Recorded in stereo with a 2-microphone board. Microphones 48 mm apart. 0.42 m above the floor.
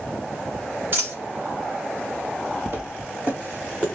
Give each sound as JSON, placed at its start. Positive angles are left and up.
{"t": 0.9, "sound": "a dropped coin", "side_deg": -50, "distance_m": 1.1}
{"t": 2.7, "sound": "footsteps", "side_deg": -45, "distance_m": 0.9}